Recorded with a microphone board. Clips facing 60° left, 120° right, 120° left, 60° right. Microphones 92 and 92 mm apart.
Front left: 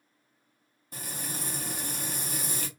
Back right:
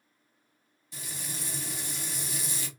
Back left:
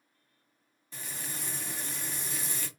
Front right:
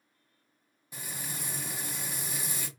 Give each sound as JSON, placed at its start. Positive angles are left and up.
{"t": 0.9, "sound": "frying", "azimuth_deg": 20, "distance_m": 0.7}